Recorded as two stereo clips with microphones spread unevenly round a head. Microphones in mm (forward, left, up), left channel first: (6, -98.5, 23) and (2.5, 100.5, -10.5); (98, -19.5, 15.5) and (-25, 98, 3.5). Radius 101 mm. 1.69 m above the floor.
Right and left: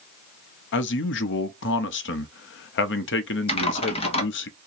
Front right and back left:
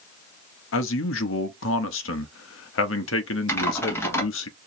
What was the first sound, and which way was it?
A man speaking, 60° right.